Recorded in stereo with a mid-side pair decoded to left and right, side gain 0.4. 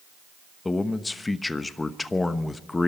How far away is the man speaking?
About 1.0 m.